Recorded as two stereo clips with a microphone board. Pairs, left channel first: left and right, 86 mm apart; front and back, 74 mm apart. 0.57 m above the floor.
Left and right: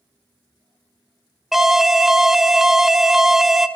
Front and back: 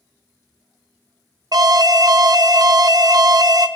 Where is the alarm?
175° right, 0.6 m.